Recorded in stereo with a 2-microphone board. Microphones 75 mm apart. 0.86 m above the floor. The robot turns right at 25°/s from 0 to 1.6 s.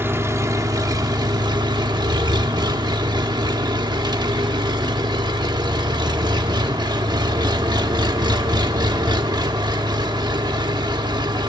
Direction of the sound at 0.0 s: 150° right.